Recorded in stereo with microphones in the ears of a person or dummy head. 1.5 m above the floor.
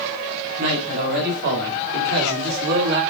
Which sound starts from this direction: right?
A man speaking, at 0.6 s.